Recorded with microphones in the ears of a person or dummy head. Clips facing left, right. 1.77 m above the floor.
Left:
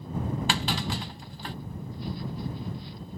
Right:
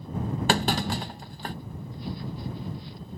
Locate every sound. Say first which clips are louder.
0.5 s a clunk: right 5 dB; 40° right (ahead or behind)